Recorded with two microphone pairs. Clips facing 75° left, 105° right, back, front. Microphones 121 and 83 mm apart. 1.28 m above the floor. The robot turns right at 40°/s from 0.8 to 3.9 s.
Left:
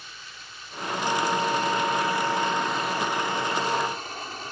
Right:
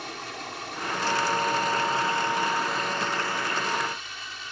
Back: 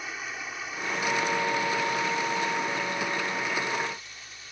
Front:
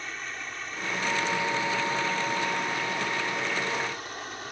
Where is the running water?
95° right; by 4.5 s 30° left.